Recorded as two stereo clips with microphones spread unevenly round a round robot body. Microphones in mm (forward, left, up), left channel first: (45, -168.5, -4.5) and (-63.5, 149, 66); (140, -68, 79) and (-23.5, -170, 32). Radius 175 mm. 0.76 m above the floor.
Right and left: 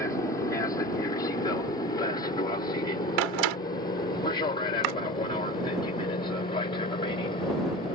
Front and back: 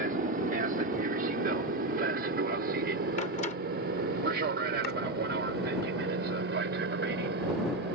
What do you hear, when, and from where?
0.0 s an aircraft: 140° right
3.2 s a door slam: 100° left
4.8 s chopping: 85° left